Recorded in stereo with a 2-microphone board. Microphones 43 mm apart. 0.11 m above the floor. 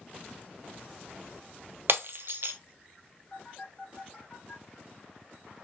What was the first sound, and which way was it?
Breaking glass, 60° right (ahead or behind).